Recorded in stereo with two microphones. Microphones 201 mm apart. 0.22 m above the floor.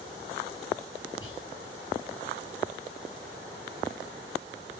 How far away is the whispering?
About 6 m.